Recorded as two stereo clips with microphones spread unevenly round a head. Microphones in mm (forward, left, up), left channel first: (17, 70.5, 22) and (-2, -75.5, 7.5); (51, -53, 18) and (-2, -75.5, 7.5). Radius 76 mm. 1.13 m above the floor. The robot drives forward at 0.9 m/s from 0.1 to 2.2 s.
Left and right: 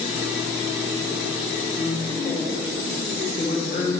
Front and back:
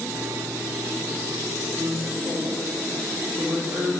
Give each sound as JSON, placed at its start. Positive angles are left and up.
{"t": 1.8, "sound": "a woman speaking", "azimuth_deg": 130, "distance_m": 1.9}